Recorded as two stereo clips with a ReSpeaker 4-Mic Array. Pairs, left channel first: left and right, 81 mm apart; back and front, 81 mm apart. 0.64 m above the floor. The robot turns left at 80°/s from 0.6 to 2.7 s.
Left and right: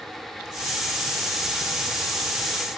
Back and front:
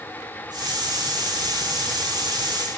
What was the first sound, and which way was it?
Only background noise.